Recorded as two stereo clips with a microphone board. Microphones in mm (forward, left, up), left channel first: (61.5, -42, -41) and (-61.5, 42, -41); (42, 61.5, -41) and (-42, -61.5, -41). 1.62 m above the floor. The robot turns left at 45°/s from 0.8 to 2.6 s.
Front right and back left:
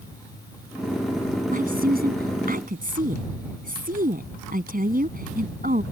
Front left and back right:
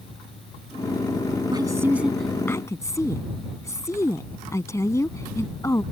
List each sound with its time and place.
1.5 s a woman speaking: 175° left; by 5.8 s 125° left